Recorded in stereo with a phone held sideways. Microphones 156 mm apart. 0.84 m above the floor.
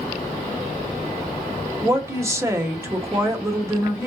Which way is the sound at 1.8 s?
20° right (ahead or behind).